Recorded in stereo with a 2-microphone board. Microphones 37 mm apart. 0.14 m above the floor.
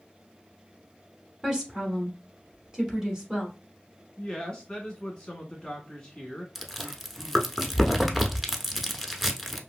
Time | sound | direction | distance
1.4 | a woman speaking | 15° right (ahead or behind) | 1.1 m
4.2 | a woman speaking | 25° left (ahead or behind) | 1.3 m
6.5 | chewing | 5° right (ahead or behind) | 0.5 m